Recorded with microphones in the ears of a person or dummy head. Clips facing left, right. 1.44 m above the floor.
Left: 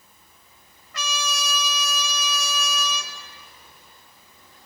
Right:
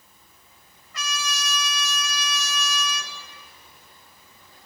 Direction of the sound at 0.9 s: 65° left (ahead or behind).